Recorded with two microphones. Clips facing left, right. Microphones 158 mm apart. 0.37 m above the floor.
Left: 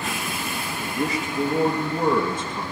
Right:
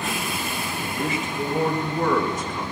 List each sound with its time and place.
0.8 s a man speaking: 40° left (ahead or behind), 5 m; by 2.6 s 25° left (ahead or behind), 3 m